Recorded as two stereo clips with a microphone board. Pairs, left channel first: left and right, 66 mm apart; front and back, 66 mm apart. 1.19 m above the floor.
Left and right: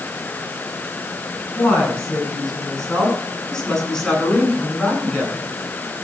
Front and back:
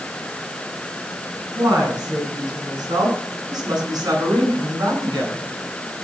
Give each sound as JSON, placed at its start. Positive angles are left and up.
{"t": 1.6, "sound": "a woman speaking", "azimuth_deg": 160, "distance_m": 9.5}